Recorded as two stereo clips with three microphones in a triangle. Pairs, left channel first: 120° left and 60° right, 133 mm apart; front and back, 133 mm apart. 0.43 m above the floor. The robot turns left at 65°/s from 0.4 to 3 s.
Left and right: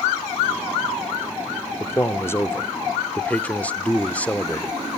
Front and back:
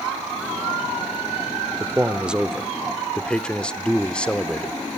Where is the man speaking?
145° left, 0.8 m; by 4.7 s 65° left, 0.8 m.